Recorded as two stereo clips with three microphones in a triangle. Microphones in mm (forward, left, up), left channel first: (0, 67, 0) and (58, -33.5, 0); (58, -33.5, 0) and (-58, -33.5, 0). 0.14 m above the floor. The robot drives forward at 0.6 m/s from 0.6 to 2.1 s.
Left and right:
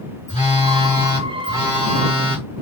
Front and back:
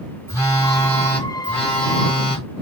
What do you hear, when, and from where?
0.3 s a phone buzzing: 45° right, 1.9 m; by 2.6 s 95° right, 1.8 m